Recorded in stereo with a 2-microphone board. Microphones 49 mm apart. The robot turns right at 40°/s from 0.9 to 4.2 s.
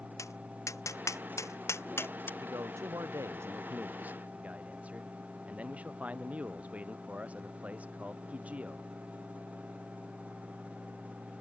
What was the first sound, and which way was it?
Tapping, 85° left.